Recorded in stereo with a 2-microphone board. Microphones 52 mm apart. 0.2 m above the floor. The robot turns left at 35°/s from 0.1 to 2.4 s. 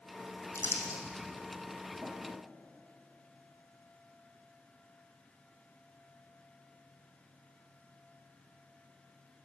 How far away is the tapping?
About 3.5 m.